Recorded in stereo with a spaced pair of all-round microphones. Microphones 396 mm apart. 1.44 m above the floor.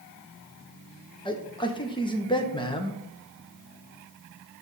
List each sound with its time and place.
1.2 s a man speaking: 10° left (ahead or behind), 1.1 m